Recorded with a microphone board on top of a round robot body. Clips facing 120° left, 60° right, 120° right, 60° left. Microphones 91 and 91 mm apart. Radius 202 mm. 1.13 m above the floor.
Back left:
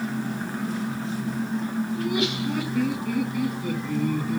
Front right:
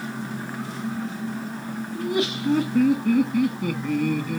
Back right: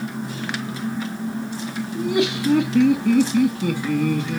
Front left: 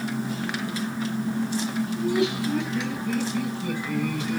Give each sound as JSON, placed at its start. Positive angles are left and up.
{"t": 1.9, "sound": "laughter", "azimuth_deg": -115, "distance_m": 3.0}